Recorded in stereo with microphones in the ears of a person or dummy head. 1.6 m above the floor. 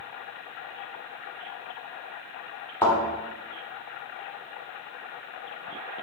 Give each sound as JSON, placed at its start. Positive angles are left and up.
{"t": 2.8, "sound": "a thud", "side_deg": 15, "distance_m": 1.4}